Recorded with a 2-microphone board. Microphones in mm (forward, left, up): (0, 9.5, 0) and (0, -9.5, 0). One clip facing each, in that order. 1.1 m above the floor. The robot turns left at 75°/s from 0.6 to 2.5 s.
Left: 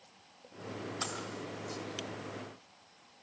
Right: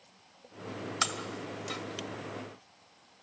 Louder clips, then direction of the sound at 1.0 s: Right 8 dB; 50° right (ahead or behind).